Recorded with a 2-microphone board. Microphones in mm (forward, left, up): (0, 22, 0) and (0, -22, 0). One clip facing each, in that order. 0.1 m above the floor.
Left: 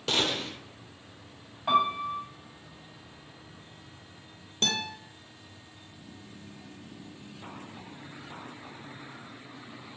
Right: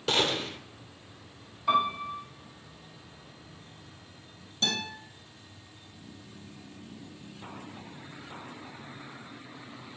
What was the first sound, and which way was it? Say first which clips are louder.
A gunshot: right 1 dB; 5° right (ahead or behind).